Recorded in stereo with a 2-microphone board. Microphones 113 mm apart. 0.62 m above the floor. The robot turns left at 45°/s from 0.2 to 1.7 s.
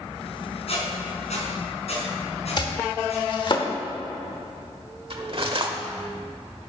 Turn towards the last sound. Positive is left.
turn(degrees=-55)  # may be behind; listen again after turning